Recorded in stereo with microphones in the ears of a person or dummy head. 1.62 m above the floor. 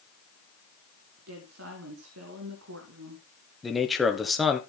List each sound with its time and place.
1.2 s a woman speaking: 75° right (ahead or behind), 1.9 m
3.6 s a man speaking: centre (ahead or behind), 0.9 m